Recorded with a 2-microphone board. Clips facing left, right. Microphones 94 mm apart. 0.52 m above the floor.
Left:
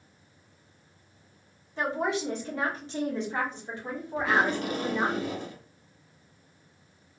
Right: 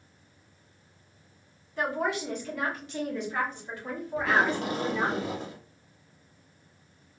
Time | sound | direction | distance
1.8 | a woman speaking | 25° left (ahead or behind) | 1.3 m
4.2 | tape being pulled | 30° right (ahead or behind) | 0.7 m